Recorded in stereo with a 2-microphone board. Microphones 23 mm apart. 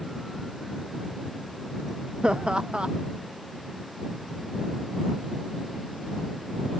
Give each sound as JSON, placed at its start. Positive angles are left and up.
{"t": 2.2, "sound": "laughter", "side_deg": -50}